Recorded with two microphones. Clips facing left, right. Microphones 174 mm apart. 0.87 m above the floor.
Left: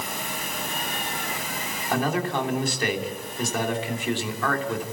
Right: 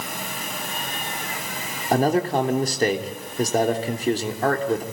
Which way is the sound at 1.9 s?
40° right (ahead or behind).